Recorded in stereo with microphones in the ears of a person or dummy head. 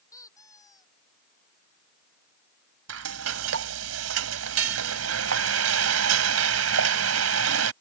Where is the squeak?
15° left (ahead or behind).